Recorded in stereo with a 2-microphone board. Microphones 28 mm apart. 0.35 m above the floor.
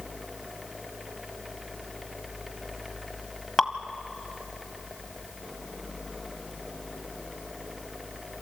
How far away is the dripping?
About 1.1 m.